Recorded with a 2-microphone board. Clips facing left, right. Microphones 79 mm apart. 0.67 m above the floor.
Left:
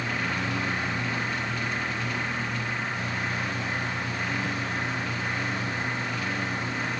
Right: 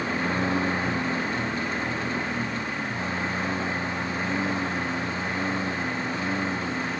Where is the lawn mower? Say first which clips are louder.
Right 3 dB; 30° right (ahead or behind); by 7.0 s 25° right (ahead or behind).